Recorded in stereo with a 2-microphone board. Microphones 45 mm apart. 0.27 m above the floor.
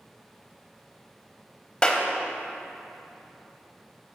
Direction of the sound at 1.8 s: 20° left (ahead or behind).